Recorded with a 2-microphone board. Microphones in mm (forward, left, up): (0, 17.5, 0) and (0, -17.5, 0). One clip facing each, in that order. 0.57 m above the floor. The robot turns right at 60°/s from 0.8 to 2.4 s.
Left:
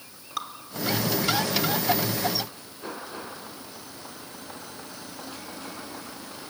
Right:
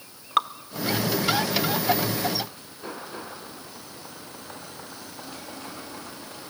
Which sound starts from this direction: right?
Dripping, at 0.4 s.